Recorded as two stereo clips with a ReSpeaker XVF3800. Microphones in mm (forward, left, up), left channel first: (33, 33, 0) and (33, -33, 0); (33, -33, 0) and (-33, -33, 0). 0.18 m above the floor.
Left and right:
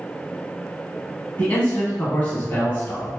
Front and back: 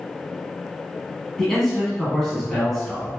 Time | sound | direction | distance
1.4 | a man speaking | 75° left | 1.1 m